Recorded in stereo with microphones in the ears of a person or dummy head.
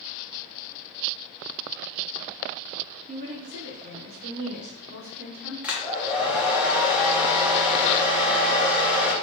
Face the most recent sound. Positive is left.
turn(degrees=-10)  # may be behind; listen again after turning